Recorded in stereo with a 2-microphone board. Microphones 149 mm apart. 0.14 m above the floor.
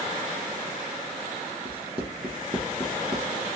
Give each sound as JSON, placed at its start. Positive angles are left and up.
{"t": 1.6, "sound": "writing", "side_deg": -35, "distance_m": 1.3}